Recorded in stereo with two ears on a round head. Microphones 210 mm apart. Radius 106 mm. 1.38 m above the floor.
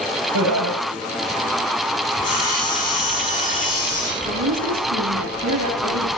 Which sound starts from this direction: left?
Sawing, at 2.1 s.